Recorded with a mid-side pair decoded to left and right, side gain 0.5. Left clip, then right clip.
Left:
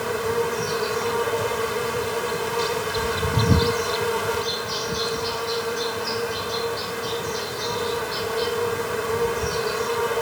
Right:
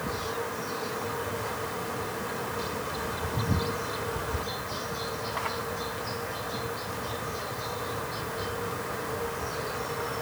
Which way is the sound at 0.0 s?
65° left.